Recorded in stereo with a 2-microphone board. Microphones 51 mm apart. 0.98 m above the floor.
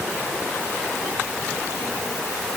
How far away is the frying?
I don't hear frying.